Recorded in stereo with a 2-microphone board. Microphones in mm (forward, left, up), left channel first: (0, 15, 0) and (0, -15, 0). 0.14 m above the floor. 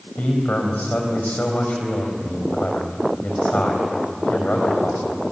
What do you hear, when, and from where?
0.2 s a man speaking: 60° left (ahead or behind), 5 m